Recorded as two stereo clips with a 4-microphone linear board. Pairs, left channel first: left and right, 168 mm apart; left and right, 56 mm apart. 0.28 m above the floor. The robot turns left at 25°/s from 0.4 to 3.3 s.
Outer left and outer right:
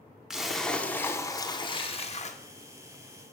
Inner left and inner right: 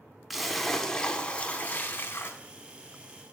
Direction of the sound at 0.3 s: Straight behind.